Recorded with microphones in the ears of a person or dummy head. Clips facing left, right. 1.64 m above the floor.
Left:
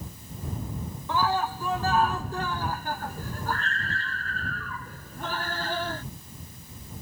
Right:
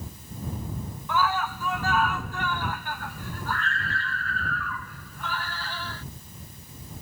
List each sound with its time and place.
1.1 s a scream: 30° left (ahead or behind); by 6.0 s 40° left (ahead or behind)